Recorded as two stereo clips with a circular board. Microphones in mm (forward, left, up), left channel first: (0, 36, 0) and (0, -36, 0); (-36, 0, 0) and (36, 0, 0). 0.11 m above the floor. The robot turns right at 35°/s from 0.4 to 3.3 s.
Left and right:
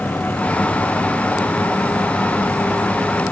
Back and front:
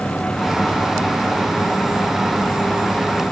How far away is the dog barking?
No dog barking in this recording.